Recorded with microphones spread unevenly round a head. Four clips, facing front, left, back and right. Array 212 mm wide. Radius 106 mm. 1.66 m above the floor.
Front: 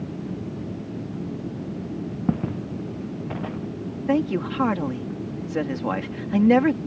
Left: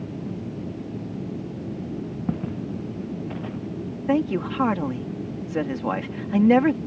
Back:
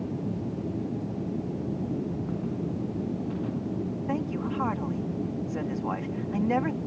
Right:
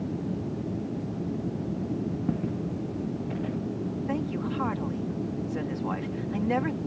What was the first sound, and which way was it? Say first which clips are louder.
Footsteps: left 1 dB, front 5 dB; 10° left.